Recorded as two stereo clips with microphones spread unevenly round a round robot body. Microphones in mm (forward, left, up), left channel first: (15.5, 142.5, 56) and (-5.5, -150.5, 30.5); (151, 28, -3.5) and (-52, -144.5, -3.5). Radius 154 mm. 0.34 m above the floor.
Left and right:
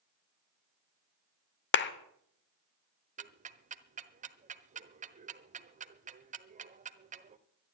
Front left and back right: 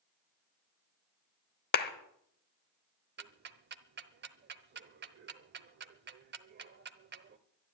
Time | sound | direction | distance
1.7 | a clap | 60° left | 1.0 m
3.2 | ticking | 135° right | 1.0 m